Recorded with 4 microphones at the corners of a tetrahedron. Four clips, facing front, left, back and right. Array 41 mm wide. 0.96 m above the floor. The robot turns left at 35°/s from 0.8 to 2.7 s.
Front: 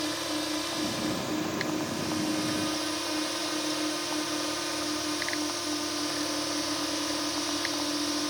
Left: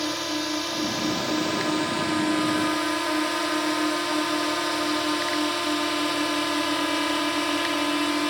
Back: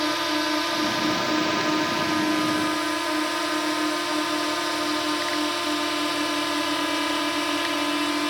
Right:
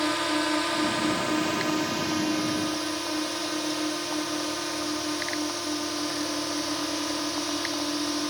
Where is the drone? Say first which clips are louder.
Right 2 dB, back 7 dB; 150° right; by 8.3 s 140° left.